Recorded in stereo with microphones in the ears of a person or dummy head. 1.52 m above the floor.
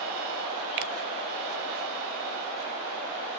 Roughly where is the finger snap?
Right.